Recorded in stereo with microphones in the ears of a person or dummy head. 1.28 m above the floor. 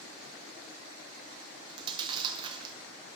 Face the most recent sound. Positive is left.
turn(degrees=-25)  # may be behind; listen again after turning